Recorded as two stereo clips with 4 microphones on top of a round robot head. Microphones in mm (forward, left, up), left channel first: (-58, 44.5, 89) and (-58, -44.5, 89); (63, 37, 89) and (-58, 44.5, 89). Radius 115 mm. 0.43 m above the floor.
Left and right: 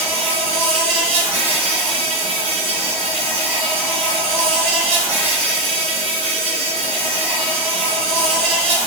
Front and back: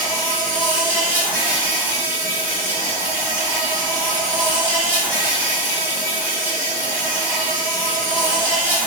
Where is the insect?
105° right, 1.7 m.